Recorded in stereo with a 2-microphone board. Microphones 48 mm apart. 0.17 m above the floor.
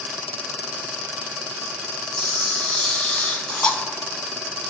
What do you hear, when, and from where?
2.2 s a camera shutter: 20° left (ahead or behind), 0.5 m